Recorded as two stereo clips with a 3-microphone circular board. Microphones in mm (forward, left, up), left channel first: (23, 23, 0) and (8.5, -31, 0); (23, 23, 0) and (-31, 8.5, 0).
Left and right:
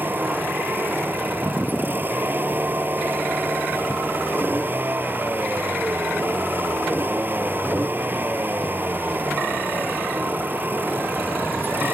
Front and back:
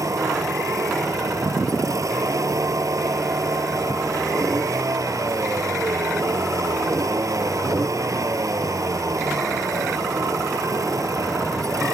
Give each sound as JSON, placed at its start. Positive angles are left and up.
{"t": 0.0, "sound": "a vehicle", "azimuth_deg": -160}